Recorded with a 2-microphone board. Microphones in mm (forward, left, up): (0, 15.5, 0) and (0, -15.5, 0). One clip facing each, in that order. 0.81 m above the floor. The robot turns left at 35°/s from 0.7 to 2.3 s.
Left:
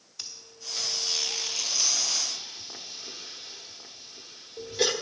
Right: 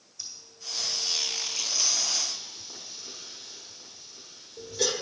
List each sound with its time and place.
0.2 s breathing: 80° left, 1.1 m; by 4.9 s 35° left (ahead or behind), 1.1 m